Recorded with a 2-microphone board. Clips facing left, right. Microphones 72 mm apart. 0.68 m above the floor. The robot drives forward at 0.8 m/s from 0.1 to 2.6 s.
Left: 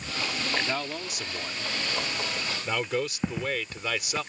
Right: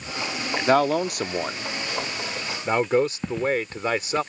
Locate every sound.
0.7 s a man speaking: 60° right (ahead or behind); by 4.2 s 35° right (ahead or behind)
3.2 s footsteps: 5° left (ahead or behind)